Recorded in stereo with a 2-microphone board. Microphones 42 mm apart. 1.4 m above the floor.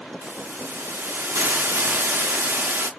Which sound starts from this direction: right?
A hiss, at 0.2 s.